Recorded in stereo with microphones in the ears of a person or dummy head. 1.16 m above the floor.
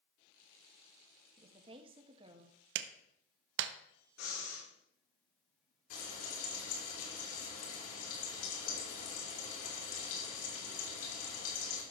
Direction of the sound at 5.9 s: 85° left.